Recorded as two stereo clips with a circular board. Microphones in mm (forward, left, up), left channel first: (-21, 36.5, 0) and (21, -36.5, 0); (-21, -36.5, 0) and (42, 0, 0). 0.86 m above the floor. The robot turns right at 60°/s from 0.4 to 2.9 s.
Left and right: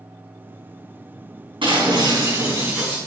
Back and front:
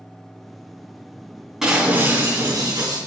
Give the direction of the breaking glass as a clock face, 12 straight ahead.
2 o'clock.